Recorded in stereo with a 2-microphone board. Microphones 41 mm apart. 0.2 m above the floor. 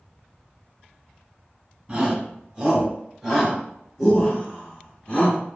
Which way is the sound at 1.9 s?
25° right (ahead or behind).